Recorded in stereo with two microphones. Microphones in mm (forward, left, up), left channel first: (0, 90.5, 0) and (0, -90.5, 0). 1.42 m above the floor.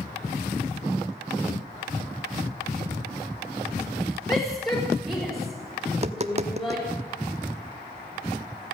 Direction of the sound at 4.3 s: 20° left (ahead or behind).